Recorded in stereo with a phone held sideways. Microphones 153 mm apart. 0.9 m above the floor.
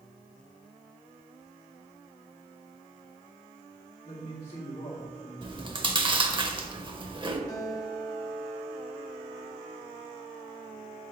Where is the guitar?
25° left (ahead or behind), 0.8 m.